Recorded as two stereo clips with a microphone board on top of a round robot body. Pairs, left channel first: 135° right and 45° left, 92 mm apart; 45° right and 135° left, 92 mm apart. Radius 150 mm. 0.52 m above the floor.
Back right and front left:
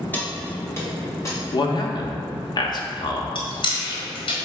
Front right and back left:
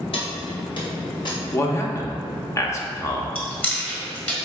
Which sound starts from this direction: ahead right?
Keys jangling, at 0.1 s.